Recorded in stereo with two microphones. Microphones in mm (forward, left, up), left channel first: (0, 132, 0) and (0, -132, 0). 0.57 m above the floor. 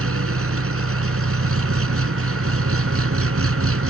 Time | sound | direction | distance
0.0 | an engine running | 60° right (ahead or behind) | ?